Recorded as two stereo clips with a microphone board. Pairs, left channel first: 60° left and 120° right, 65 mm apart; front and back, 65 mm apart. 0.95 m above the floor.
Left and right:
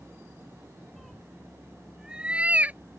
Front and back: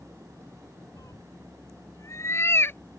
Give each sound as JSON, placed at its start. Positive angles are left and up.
{"t": 1.0, "sound": "a cat meowing", "azimuth_deg": -25}